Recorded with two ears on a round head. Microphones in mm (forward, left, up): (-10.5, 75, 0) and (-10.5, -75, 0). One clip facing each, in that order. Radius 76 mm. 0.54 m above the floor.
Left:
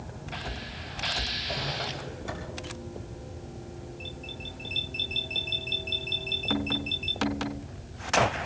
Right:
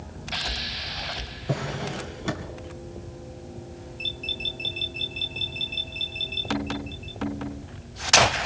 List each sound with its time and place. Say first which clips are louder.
1.5 s a drawer: right 6 dB; 75° right (ahead or behind), 3 m